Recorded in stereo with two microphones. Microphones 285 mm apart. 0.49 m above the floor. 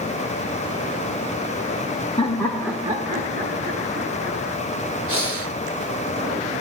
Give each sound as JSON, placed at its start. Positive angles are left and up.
{"t": 2.2, "sound": "laughter", "side_deg": 20, "distance_m": 0.9}
{"t": 5.1, "sound": "breathing", "side_deg": -80, "distance_m": 1.4}